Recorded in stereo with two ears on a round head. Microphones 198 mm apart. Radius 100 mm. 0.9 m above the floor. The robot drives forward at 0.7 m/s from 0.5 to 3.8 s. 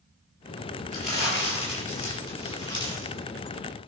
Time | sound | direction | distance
0.9 | crumpling | 30° left (ahead or behind) | 5.5 m